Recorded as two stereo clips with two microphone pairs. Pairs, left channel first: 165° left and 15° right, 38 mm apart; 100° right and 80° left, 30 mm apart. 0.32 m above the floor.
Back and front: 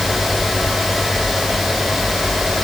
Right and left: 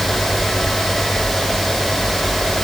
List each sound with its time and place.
Only background noise.